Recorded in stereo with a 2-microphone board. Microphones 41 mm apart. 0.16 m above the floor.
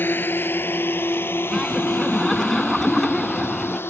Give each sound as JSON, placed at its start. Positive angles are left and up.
{"t": 0.0, "sound": "a drone", "side_deg": 60}
{"t": 1.5, "sound": "laughter", "side_deg": 10}